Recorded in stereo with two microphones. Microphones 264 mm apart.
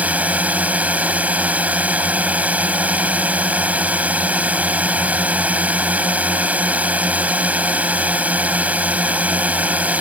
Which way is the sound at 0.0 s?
5° right (ahead or behind).